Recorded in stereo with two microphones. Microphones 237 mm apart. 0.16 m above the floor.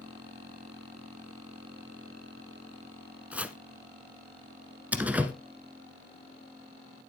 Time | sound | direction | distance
3.3 | chopping | 5° right (ahead or behind) | 0.8 m
4.9 | a door slam | 5° right (ahead or behind) | 1.3 m